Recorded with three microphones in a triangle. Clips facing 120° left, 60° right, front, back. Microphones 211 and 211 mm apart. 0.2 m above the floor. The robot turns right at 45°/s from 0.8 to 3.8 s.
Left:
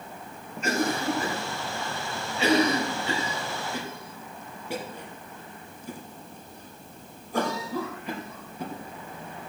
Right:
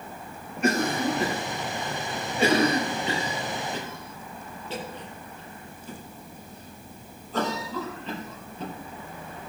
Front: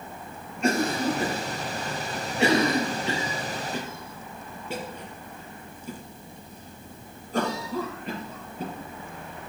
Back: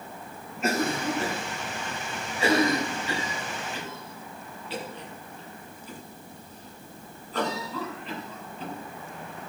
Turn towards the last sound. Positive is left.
turn(degrees=40)